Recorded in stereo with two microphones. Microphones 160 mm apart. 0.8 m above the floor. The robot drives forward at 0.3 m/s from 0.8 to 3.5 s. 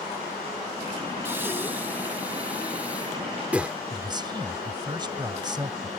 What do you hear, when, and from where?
1.2 s breathing: 15° right (ahead or behind); by 3.8 s 10° right (ahead or behind)
3.9 s a man speaking: 25° right (ahead or behind)